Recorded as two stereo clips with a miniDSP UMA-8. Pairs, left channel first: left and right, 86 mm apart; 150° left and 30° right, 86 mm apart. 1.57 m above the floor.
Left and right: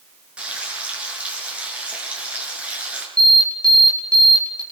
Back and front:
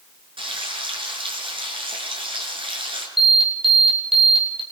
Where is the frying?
15° right, 7.5 m.